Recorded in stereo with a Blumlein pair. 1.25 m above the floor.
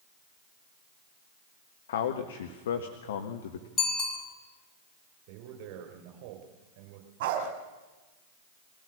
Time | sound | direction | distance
1.9 | a man speaking | 60° left | 1.6 m
3.8 | a bicycle bell | 15° left | 5.5 m
5.3 | a man speaking | 45° right | 7 m
7.2 | a dog barking | 45° right | 4 m